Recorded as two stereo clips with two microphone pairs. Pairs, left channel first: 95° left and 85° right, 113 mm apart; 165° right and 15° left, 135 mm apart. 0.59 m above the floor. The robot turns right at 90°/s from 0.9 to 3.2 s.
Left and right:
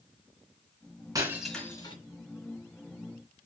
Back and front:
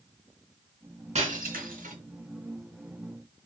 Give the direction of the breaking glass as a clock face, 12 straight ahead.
1 o'clock.